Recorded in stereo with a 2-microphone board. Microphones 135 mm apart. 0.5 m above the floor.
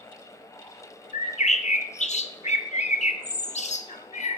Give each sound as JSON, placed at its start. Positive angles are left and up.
{"t": 1.1, "sound": "a bird", "side_deg": 60, "distance_m": 0.6}